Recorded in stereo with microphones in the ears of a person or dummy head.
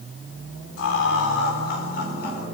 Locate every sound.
0.8 s laughter: 70° left (ahead or behind), 4.5 m; by 2.5 s 60° left (ahead or behind), 5.5 m